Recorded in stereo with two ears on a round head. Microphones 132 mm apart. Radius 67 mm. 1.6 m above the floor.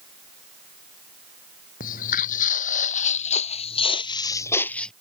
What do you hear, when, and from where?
1.8 s footsteps: 60° left (ahead or behind); by 4.9 s 5° left (ahead or behind)